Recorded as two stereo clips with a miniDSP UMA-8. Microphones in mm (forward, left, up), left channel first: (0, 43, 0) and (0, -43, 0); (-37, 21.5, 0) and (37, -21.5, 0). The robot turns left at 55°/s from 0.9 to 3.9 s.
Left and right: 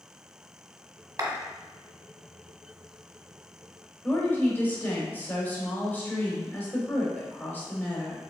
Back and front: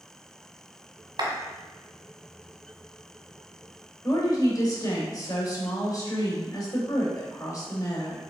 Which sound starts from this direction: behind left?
A woman speaking, at 4.0 s.